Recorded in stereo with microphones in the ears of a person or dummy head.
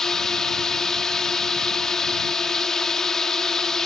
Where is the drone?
Centre (ahead or behind).